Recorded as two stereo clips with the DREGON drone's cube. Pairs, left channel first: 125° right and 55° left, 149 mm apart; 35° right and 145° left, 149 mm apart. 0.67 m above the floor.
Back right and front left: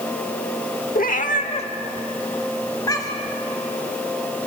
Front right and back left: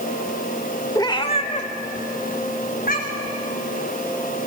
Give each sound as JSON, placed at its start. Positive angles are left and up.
{"t": 0.9, "sound": "a cat meowing", "azimuth_deg": -100, "distance_m": 0.8}